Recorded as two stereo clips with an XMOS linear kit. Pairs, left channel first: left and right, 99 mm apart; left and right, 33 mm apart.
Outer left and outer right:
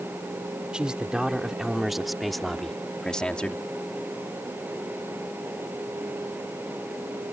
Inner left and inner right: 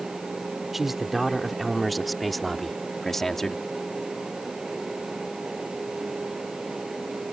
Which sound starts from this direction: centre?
A man speaking, at 0.7 s.